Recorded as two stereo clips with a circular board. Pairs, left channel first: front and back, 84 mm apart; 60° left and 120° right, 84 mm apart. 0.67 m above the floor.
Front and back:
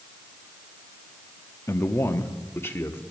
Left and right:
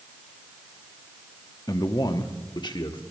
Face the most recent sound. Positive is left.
turn(degrees=65)